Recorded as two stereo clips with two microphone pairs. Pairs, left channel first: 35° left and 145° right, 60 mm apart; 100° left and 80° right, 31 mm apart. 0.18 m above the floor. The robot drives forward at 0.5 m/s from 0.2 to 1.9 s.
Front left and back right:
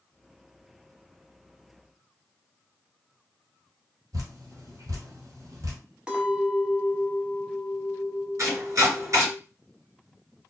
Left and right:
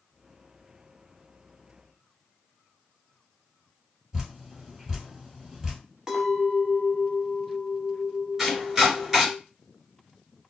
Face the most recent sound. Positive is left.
turn(degrees=-155)